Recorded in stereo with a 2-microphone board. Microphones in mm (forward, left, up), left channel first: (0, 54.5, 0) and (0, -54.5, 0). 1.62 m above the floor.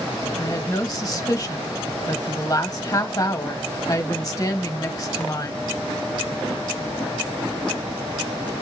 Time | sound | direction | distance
0.4 | a woman speaking | 30° left (ahead or behind) | 1.6 m